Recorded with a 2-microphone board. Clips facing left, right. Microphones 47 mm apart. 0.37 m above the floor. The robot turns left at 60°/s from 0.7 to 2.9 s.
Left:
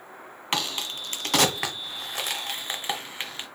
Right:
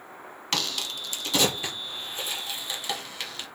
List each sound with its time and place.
0.5 s a crack: 20° left (ahead or behind), 0.8 m; by 3.5 s 25° left (ahead or behind), 0.8 m